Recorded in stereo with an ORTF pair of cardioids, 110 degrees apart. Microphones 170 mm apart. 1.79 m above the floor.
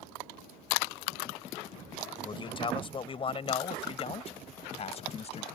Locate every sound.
2.2 s a man speaking: 30° left; by 5.5 s 40° left